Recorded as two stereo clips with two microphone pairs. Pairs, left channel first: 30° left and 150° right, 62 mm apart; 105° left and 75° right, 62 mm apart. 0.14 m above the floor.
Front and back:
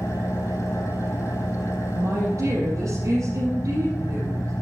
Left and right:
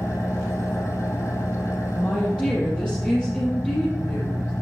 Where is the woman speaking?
Straight behind, 4.5 m.